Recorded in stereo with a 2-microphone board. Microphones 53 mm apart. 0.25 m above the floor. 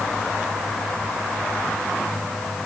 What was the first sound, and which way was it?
Only background noise.